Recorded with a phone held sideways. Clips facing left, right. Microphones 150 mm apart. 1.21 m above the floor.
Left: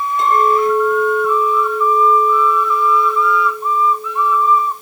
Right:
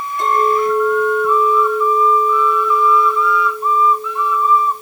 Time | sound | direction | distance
0.2 | a clink | 20° left (ahead or behind) | 3.5 m